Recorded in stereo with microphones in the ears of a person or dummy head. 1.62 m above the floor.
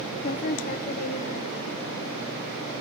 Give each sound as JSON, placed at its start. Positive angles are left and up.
{"t": 0.2, "sound": "a woman speaking", "side_deg": 50, "distance_m": 0.7}